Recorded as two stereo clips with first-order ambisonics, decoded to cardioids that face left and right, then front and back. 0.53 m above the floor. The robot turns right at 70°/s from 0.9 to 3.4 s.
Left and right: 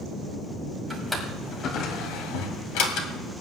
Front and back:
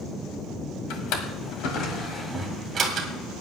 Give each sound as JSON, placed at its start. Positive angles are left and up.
{"t": 0.9, "sound": "a drawer", "azimuth_deg": -15, "distance_m": 1.7}